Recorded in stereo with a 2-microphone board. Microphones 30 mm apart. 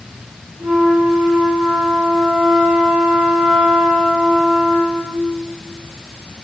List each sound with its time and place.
0.6 s a flute: 80° right, 1.5 m